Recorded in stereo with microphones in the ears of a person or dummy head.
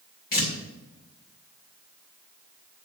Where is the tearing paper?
50° left (ahead or behind), 3 m.